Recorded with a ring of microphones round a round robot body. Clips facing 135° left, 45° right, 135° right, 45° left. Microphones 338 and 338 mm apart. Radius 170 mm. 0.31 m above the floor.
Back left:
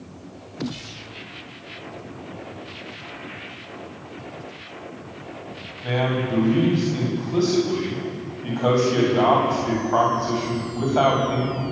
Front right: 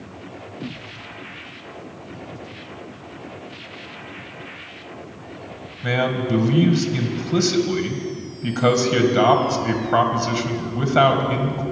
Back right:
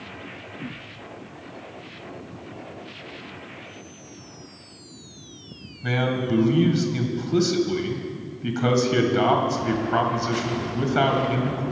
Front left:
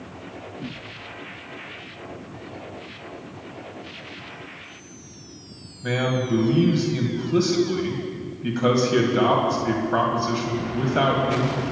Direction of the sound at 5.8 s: 65° right.